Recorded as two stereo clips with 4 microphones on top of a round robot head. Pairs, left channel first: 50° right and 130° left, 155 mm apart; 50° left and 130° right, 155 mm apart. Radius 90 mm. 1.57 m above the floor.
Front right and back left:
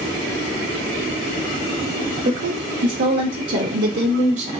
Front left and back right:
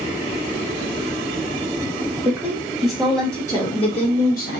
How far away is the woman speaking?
About 1.1 m.